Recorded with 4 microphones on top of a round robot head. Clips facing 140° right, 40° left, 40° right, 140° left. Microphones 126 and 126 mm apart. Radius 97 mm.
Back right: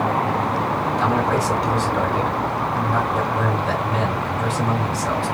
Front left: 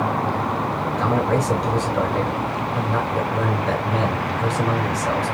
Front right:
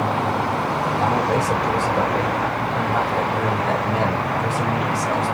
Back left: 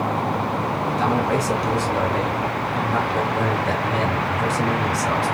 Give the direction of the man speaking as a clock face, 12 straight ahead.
7 o'clock.